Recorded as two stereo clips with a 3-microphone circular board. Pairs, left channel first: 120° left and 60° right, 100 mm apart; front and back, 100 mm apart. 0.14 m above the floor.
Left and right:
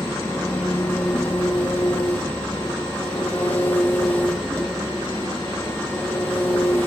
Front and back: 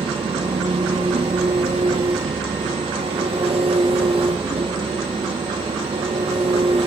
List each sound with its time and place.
0.0 s an engine running: 165° right, 3.5 m